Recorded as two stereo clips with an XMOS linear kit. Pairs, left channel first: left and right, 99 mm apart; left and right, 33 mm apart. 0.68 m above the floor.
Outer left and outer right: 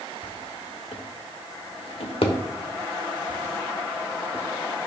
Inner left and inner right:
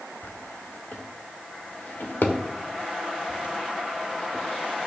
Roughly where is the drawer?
Left.